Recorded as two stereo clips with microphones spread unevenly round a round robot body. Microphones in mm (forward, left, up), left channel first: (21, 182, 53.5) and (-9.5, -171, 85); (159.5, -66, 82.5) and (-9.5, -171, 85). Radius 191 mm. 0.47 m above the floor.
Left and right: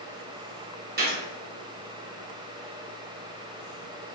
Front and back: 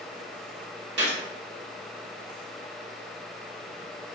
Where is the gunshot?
160° right, 1.1 m.